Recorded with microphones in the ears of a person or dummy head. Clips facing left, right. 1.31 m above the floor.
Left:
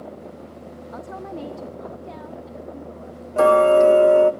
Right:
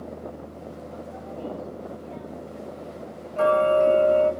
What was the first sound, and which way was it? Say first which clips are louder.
A woman speaking: left 7 dB; 65° left (ahead or behind).